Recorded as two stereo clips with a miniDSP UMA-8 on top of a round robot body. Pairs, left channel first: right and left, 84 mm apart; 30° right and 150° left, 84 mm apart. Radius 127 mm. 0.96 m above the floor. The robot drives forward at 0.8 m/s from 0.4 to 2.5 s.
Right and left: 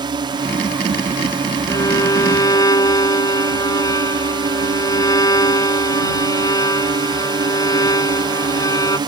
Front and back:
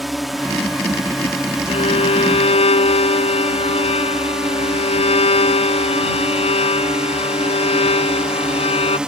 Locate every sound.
0.0 s a drone: 65° left; by 9.1 s 70° left
1.7 s a violin: 35° right; by 9.0 s 40° right